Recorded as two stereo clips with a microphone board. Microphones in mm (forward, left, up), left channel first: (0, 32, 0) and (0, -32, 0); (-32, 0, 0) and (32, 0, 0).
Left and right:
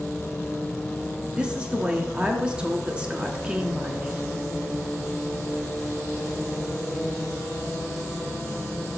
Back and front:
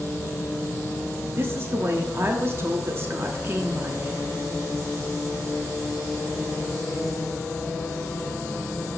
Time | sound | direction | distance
1.4 | a woman speaking | 25° right | 0.8 m